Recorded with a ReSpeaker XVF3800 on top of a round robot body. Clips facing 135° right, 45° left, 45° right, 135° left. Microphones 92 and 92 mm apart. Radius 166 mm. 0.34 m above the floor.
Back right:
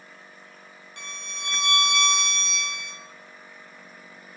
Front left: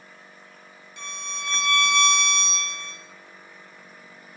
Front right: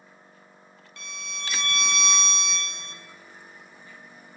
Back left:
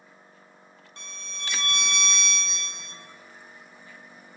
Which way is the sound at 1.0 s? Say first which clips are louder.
Front left 4 dB, front right 4 dB; 165° right.